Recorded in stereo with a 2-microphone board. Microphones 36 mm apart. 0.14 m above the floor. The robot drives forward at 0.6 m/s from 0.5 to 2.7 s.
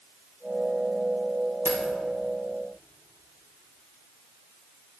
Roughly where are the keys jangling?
Right.